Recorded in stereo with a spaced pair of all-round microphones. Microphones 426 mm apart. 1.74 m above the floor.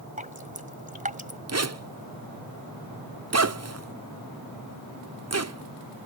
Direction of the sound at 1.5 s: 35° right (ahead or behind).